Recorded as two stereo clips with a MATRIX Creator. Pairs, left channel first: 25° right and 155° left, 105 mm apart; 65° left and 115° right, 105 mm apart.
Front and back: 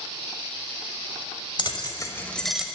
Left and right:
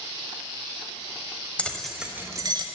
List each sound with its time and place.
1.6 s keys jangling: 5° right, 0.9 m; by 2.6 s 125° right, 0.8 m